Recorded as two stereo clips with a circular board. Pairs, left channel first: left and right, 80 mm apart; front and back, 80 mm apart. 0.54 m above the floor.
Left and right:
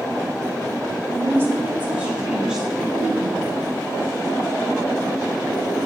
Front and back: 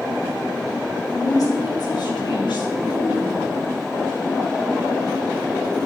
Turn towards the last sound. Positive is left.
turn(degrees=20)